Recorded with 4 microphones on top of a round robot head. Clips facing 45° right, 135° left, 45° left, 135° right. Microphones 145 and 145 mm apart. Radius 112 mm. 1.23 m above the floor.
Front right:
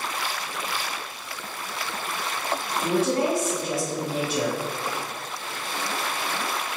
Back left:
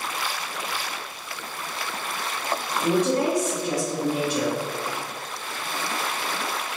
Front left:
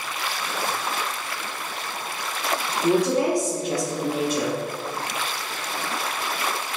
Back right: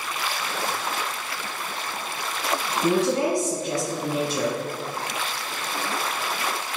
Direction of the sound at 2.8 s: 150° right.